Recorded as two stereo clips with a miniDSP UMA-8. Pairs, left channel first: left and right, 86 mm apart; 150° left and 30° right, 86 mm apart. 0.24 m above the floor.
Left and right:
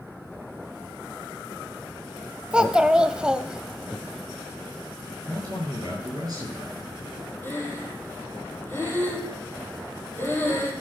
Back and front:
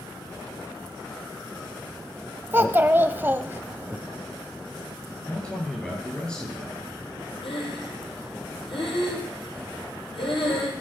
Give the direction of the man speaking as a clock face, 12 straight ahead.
4 o'clock.